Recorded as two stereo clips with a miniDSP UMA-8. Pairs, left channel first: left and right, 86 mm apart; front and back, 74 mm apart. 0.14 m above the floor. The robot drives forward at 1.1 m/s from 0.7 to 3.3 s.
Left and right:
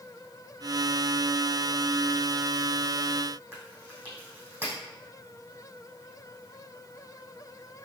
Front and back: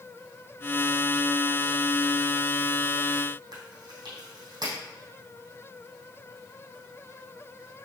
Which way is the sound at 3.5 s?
160° right.